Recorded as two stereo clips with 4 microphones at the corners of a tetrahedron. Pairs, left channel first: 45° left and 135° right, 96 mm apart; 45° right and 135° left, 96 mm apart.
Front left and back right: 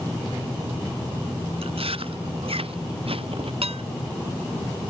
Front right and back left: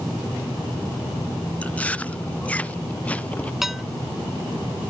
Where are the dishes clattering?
140° right.